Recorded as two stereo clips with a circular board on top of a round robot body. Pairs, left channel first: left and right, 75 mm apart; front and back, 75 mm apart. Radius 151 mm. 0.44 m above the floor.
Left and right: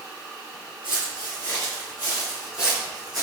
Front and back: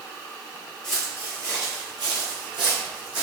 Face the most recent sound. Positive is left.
turn(degrees=-175)